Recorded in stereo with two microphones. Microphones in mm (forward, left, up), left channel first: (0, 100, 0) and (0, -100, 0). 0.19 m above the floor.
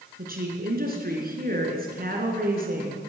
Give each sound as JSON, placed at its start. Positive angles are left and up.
{"t": 0.2, "sound": "a woman speaking", "side_deg": -50, "distance_m": 2.5}